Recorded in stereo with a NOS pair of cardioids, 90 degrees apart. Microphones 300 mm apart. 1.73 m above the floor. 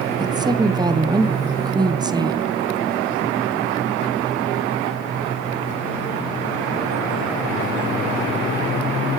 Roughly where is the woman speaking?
Ahead.